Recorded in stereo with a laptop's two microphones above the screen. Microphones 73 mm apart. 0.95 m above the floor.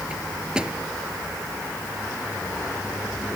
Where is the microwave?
10° right (ahead or behind).